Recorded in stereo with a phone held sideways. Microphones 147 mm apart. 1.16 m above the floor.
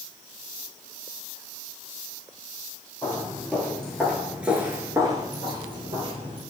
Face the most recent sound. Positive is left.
turn(degrees=-40)  # may be behind; listen again after turning